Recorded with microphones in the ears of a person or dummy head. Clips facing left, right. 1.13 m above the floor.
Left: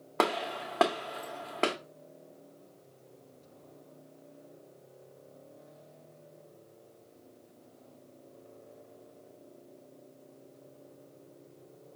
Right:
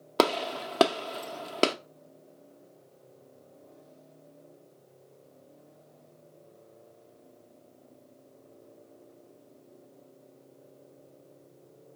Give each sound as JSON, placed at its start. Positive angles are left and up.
{"t": 0.2, "sound": "a gunshot", "side_deg": -55, "distance_m": 0.6}